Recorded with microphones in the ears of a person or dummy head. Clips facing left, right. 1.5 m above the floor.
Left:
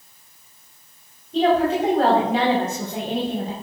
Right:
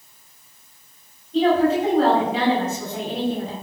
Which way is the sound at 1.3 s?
40° left (ahead or behind).